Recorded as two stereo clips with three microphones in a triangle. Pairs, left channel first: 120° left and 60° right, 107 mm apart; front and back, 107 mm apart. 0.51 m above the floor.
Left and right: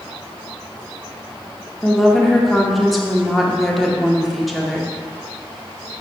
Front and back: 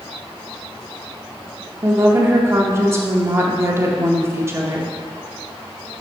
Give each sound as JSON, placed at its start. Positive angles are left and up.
{"t": 1.8, "sound": "a woman speaking", "azimuth_deg": -150, "distance_m": 0.8}